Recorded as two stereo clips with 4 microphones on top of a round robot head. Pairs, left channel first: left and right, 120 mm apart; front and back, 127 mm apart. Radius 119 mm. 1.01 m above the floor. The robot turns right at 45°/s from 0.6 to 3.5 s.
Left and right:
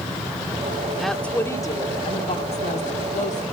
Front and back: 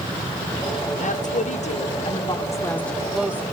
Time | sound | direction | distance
1.0 | a woman speaking | straight ahead | 1.5 m